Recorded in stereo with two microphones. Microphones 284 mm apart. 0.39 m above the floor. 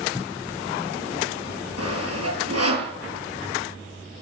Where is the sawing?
60° right (ahead or behind), 7.5 m.